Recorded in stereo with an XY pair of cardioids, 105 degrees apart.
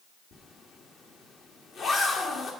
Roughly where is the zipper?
Ahead left.